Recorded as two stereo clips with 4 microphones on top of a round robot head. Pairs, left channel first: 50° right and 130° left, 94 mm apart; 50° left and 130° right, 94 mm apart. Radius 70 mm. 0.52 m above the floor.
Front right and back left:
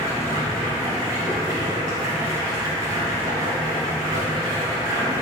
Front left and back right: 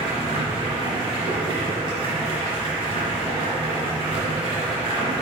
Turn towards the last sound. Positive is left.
turn(degrees=-170)